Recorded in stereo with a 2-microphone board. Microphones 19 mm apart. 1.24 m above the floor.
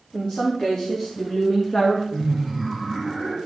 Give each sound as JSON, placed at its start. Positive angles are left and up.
{"t": 0.1, "sound": "a woman speaking", "side_deg": 40, "distance_m": 3.5}
{"t": 2.1, "sound": "laughter", "side_deg": 10, "distance_m": 2.0}